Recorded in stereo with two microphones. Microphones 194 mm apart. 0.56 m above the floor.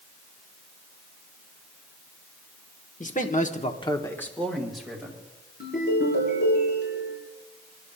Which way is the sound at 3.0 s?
40° left (ahead or behind).